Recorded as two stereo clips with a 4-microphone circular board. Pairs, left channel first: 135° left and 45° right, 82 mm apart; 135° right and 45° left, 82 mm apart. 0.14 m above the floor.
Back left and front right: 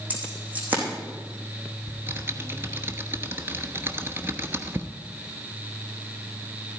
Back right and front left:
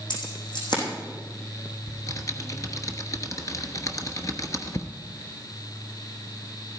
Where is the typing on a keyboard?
100° right, 1.1 m.